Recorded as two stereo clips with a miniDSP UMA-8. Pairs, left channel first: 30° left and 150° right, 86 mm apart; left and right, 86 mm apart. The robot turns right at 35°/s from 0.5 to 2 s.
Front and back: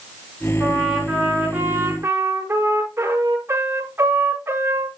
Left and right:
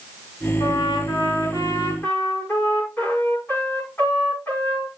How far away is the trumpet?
About 6.5 m.